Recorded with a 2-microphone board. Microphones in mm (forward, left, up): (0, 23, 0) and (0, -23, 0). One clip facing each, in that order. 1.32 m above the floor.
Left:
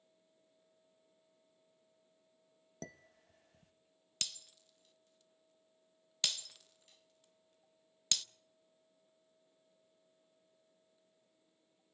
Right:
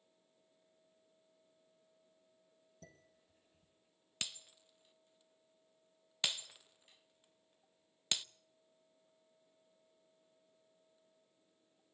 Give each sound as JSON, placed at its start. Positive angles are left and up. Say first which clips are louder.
{"t": 2.8, "sound": "dishes clattering", "louder": "left 11 dB", "side_deg": 70, "distance_m": 0.9}
{"t": 4.2, "sound": "breaking glass", "louder": "right 1 dB", "side_deg": -15, "distance_m": 0.5}